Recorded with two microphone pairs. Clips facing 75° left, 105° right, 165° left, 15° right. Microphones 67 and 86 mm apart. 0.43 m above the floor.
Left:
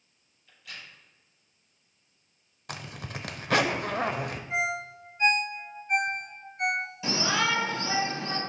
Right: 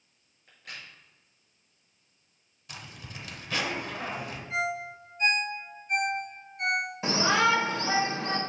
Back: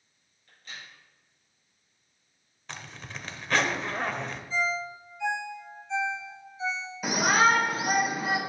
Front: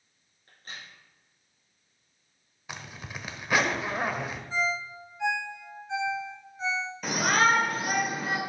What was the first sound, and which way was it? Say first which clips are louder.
A crack: right 1 dB, front 1 dB; 60° right.